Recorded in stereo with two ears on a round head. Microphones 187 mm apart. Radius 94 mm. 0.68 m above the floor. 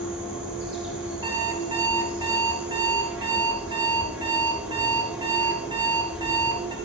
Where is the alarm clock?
20° right (ahead or behind), 3 m.